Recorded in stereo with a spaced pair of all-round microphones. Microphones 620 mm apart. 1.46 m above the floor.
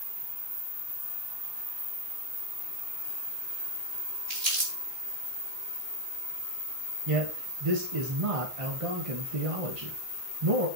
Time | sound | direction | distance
4.3 | crumpling | 85° right | 3.5 m
7.1 | a man speaking | 60° right (ahead or behind) | 1.4 m